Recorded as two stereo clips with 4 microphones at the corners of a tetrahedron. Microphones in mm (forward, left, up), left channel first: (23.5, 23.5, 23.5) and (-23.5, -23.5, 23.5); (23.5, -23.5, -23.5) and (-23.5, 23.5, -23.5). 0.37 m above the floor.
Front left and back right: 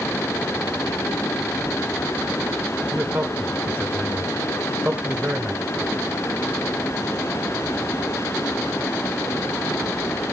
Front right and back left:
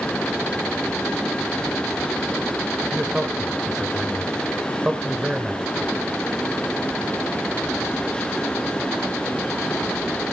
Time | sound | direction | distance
2.9 | a man speaking | 155° right | 1.2 m